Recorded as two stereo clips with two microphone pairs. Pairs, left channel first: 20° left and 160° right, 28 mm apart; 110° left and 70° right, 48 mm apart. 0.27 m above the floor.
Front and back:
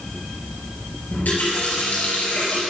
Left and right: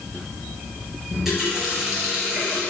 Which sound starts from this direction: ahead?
A running tap, at 1.1 s.